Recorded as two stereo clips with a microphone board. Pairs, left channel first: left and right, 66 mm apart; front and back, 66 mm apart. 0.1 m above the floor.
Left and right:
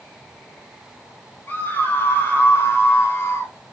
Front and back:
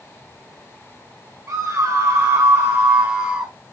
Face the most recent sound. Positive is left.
turn(degrees=105)